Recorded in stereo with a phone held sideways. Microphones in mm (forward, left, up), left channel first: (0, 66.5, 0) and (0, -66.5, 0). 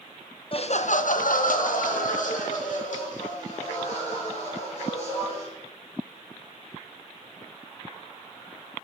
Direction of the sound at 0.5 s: 45° left (ahead or behind).